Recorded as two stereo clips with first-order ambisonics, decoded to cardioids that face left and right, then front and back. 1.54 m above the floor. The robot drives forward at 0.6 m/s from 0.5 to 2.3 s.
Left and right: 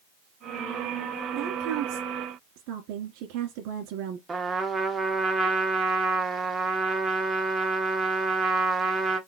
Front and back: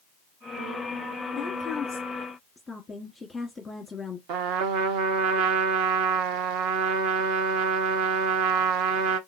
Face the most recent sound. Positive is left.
turn(degrees=-165)